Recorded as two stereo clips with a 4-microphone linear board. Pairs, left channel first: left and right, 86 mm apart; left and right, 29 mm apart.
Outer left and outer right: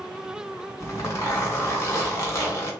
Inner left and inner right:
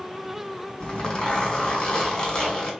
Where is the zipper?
30° left (ahead or behind), 1.6 m.